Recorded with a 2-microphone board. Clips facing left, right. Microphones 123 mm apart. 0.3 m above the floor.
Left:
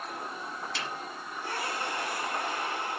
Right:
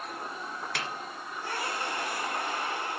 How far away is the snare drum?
About 1.4 m.